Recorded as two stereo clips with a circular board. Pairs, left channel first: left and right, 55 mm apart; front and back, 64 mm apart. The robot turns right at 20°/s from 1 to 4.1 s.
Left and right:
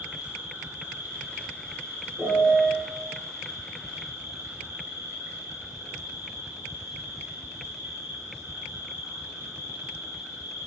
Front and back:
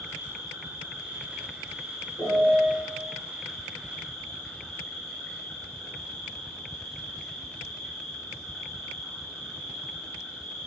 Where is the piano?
15° right, 1.3 m; by 2.8 s 5° right, 1.3 m.